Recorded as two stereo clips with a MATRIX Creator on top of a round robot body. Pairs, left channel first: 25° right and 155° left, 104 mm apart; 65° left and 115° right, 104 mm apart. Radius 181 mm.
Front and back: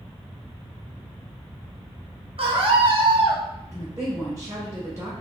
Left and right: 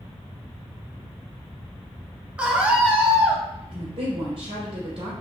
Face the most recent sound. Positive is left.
turn(degrees=-140)